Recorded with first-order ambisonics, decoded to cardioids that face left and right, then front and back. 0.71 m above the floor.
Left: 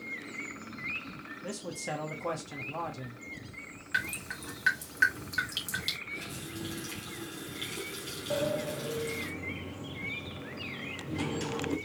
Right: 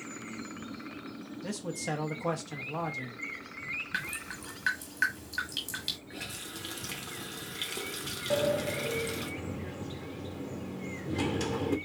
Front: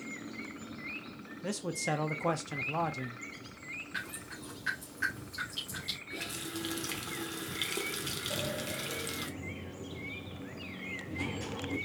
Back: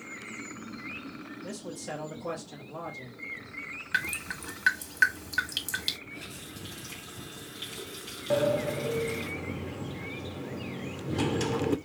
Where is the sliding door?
165° right, 0.6 m.